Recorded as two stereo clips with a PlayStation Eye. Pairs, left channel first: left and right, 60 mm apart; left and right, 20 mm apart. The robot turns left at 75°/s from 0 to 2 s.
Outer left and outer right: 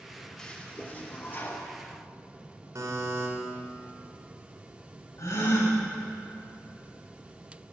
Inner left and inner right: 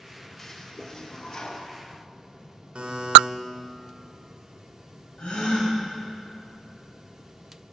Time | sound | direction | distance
0.4 | a toilet flushing | 160° left | 0.9 m
2.8 | a buzzer | 60° right (ahead or behind) | 1.8 m
5.2 | a gasp | 55° left (ahead or behind) | 3 m